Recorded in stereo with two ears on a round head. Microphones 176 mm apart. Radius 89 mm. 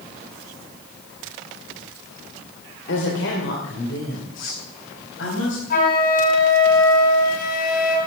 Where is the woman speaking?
65° left (ahead or behind), 2.5 m.